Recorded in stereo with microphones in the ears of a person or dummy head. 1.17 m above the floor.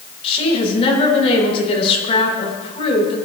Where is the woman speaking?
35° left (ahead or behind), 8 m.